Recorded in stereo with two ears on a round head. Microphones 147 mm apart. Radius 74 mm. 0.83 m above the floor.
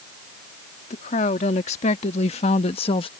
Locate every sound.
0.9 s a woman speaking: 45° left (ahead or behind); by 3.1 s 35° left (ahead or behind)